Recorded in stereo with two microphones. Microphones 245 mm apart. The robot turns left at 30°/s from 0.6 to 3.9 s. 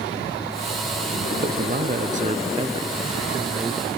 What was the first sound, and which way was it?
A man speaking, 105° right.